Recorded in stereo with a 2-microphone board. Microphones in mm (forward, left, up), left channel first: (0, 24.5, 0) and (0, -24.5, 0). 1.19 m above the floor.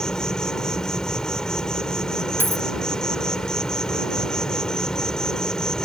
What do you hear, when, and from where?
0.0 s an insect: 15° left (ahead or behind)
2.4 s a dropped coin: 45° left (ahead or behind)